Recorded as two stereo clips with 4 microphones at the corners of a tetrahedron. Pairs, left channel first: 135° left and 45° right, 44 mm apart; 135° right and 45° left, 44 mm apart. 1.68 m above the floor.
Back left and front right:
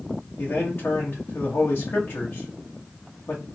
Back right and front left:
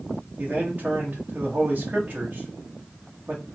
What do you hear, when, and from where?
0.4 s a man speaking: 100° left, 0.8 m